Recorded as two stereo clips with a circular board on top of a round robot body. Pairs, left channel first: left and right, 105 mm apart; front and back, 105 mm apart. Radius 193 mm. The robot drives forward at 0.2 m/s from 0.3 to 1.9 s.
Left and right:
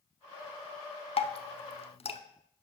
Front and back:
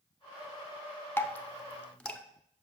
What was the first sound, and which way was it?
Dripping, 70° left.